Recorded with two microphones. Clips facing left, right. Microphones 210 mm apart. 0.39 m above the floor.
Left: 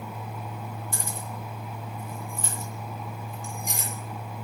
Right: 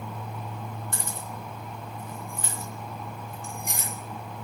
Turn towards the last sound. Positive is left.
turn(degrees=-55)  # may be behind; listen again after turning